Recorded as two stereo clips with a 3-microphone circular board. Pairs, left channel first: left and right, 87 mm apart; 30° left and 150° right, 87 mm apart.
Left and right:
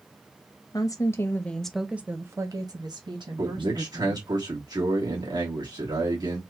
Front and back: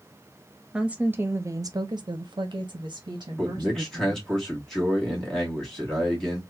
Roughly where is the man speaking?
Ahead right.